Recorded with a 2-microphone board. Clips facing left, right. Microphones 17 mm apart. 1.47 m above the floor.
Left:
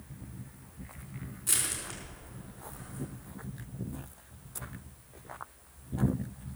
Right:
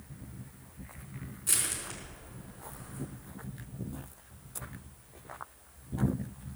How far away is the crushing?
About 4.5 m.